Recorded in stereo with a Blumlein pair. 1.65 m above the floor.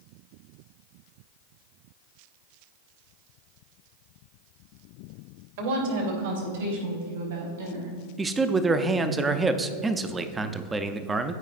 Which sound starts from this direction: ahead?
A man speaking, at 8.2 s.